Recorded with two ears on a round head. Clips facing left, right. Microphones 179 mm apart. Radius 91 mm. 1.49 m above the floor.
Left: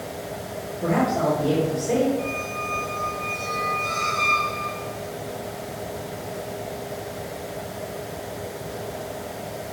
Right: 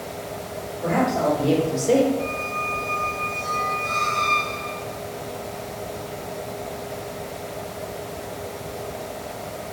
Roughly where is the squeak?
Left.